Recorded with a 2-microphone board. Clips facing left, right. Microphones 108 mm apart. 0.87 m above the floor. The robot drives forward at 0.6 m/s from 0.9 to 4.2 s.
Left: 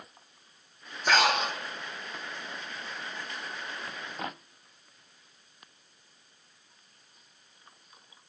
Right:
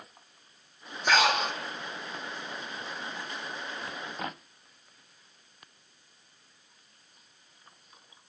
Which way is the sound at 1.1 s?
Centre (ahead or behind).